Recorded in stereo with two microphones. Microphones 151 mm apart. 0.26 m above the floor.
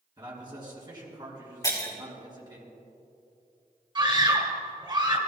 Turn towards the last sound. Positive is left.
turn(degrees=-30)  # may be behind; listen again after turning